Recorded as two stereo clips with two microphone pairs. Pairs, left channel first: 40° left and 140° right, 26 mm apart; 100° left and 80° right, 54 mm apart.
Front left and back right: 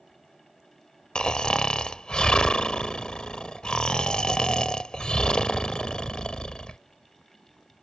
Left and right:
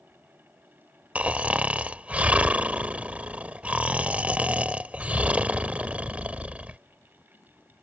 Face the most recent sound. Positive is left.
turn(degrees=-15)